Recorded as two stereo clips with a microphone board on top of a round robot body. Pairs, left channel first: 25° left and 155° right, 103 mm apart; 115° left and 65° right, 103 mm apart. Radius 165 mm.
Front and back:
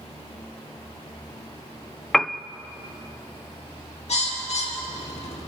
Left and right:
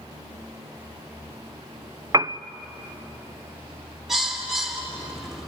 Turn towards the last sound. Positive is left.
turn(degrees=20)